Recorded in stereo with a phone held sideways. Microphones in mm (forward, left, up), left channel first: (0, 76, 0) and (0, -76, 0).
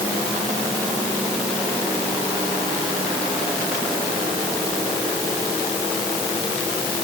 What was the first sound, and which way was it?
Only background noise.